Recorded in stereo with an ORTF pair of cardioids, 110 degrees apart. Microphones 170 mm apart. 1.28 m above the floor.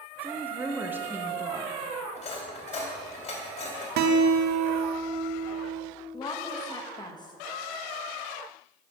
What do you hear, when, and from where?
0.2 s a woman speaking: 10° right, 1.3 m
2.1 s cutlery clinking: 45° left, 2.5 m
4.0 s a guitar: 70° right, 1.0 m
6.1 s a woman speaking: 25° left, 1.8 m